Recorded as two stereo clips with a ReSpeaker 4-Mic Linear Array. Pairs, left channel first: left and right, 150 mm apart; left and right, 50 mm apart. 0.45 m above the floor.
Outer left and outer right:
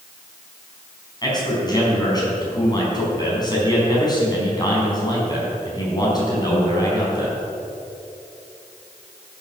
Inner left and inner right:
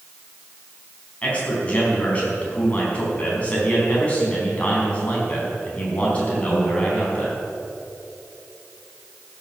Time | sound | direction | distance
1.2 | a man speaking | 25° left (ahead or behind) | 5 m